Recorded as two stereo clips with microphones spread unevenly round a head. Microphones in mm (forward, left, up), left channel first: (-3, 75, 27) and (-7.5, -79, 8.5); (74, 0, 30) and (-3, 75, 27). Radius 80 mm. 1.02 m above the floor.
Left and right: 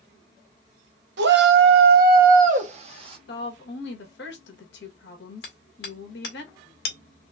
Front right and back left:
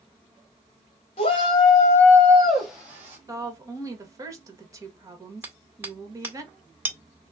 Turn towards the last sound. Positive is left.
turn(degrees=65)